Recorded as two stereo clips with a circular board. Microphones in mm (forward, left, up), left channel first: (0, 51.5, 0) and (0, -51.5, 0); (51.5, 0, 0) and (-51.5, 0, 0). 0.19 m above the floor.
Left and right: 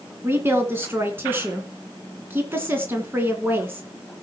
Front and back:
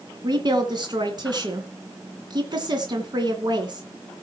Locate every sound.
0.2 s a woman speaking: 155° right, 2.5 m